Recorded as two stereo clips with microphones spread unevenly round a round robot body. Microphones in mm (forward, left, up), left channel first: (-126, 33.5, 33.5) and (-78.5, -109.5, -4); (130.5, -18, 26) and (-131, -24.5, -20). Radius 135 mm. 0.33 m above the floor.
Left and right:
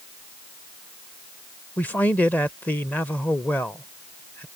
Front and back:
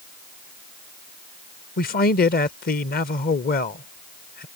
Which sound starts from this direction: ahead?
A man speaking, at 1.8 s.